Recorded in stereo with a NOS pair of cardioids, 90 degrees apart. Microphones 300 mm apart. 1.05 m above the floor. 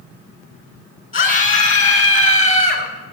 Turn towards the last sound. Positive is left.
turn(degrees=25)